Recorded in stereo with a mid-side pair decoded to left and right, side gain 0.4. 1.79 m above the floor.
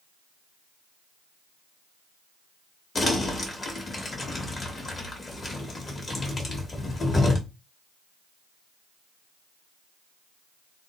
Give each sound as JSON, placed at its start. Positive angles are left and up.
{"t": 3.0, "sound": "crumpling", "azimuth_deg": 35, "distance_m": 1.2}